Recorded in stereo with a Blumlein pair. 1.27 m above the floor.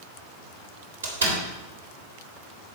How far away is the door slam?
About 3.5 m.